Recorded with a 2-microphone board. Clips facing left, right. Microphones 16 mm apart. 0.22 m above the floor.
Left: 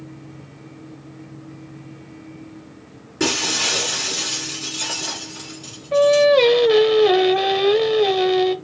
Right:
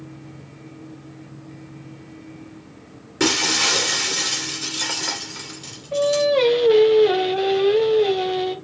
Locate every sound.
3.2 s breaking glass: 15° right (ahead or behind), 2 m
5.9 s singing: 25° left (ahead or behind), 1.0 m